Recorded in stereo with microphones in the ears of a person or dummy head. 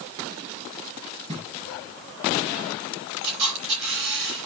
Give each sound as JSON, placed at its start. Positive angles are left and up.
{"t": 1.3, "sound": "knocking", "side_deg": -35, "distance_m": 8.0}
{"t": 3.2, "sound": "a camera shutter", "side_deg": -65, "distance_m": 5.0}